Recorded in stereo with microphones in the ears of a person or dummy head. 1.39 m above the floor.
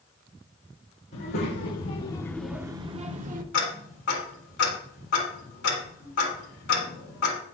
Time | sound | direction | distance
1.1 | a child speaking | 60° left (ahead or behind) | 0.9 m
3.5 | ticking | 60° left (ahead or behind) | 1.9 m